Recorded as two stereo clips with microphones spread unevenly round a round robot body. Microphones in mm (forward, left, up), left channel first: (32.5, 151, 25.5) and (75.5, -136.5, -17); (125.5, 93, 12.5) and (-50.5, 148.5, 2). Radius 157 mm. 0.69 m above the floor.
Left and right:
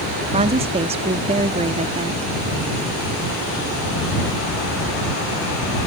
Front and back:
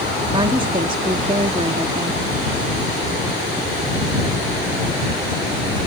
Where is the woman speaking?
140° right.